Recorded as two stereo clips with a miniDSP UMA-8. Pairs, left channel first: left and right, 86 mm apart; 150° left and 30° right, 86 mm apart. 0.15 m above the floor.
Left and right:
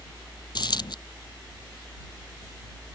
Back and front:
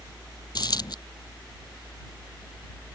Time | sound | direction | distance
0.6 | a dropped coin | 120° left | ?